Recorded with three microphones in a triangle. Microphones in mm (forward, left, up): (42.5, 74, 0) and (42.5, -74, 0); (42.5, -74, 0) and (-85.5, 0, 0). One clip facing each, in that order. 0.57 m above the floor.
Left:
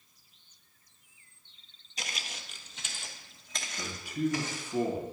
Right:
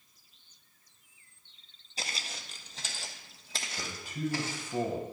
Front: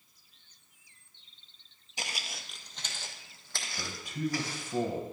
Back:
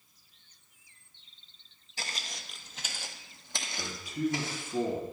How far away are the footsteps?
About 0.6 m.